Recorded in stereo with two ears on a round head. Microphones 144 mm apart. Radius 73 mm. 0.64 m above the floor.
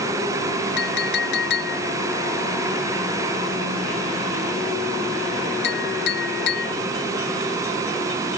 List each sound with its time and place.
0.8 s a clink: 70° left (ahead or behind)